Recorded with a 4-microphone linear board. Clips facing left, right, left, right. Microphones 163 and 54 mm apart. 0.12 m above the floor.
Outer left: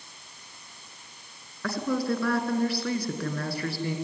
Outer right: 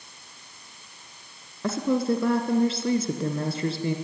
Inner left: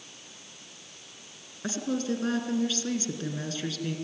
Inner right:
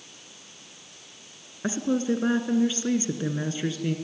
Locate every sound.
1.6 s a woman speaking: 25° right (ahead or behind), 1.9 m